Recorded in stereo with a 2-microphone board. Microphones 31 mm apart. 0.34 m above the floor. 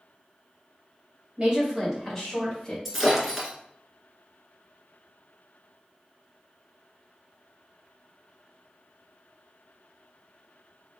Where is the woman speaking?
30° right (ahead or behind), 1.6 m; by 2.8 s 25° left (ahead or behind), 1.9 m.